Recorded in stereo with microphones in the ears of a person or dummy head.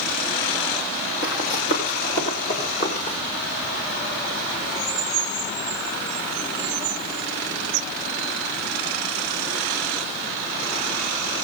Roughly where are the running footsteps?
Left.